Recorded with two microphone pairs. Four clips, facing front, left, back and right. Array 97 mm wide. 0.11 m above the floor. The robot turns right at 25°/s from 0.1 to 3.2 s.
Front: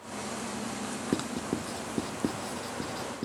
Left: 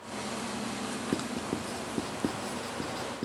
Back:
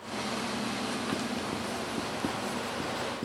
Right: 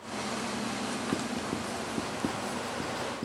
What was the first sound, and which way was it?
Writing, 40° left.